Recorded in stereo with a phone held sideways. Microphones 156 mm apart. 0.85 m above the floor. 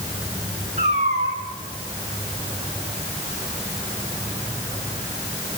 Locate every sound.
0.8 s a cat meowing: 45° right (ahead or behind), 5 m